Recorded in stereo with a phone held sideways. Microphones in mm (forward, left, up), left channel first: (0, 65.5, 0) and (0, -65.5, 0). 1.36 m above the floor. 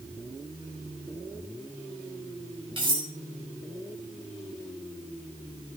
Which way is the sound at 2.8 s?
40° right (ahead or behind).